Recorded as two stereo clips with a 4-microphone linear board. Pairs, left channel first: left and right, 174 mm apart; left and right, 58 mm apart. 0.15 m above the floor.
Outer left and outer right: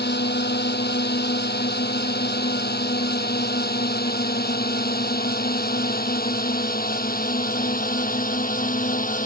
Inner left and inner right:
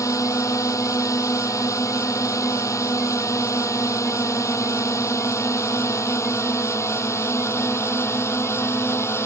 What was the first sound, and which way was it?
A drone, 70° left (ahead or behind).